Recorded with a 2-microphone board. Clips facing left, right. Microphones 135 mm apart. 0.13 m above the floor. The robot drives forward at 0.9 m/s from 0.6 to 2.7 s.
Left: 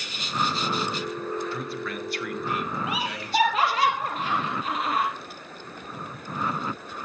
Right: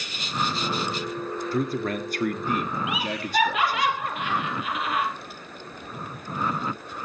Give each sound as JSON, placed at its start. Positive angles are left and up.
{"t": 1.5, "sound": "a man speaking", "side_deg": -40, "distance_m": 2.5}
{"t": 2.9, "sound": "laughter", "side_deg": 40, "distance_m": 3.5}